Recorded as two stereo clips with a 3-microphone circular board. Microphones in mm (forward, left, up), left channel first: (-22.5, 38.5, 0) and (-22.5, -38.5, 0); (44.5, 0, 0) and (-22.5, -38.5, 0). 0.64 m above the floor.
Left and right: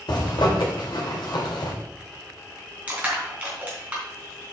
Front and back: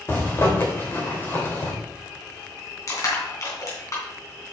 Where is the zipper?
90° left, 2 m.